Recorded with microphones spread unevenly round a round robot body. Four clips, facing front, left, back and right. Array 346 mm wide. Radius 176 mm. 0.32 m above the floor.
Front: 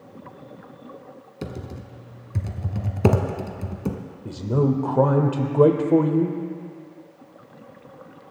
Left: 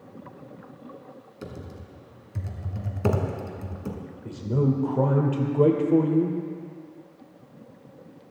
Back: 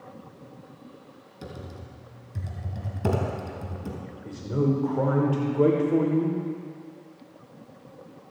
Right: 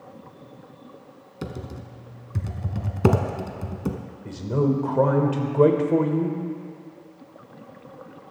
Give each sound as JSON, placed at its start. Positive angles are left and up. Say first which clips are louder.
{"t": 1.4, "sound": "typing on a keyboard", "louder": "right 5 dB, front 6 dB", "azimuth_deg": -50, "distance_m": 1.1}
{"t": 4.2, "sound": "a man speaking", "louder": "right 2 dB, front 4 dB", "azimuth_deg": -30, "distance_m": 1.3}